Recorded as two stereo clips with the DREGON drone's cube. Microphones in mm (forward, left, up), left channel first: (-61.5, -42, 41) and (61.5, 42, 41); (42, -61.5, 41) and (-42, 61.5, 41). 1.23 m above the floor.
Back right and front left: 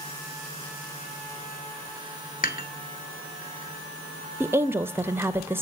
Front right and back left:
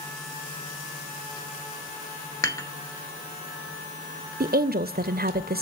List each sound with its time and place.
2.4 s dishes clattering: 125° right, 1.3 m
4.4 s a woman speaking: 110° left, 0.5 m